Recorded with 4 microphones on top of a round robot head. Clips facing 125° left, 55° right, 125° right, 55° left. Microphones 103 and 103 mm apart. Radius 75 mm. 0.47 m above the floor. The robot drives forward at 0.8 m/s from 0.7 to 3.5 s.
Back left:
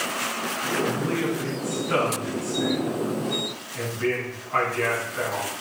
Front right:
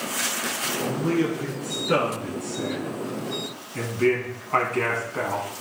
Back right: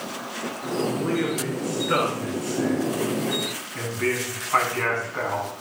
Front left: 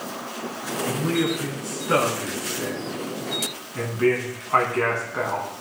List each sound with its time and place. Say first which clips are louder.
0.8 s a man speaking: front right 3 dB, front left 1 dB; 15° right, 6.5 m; by 5.5 s 20° right, 4.5 m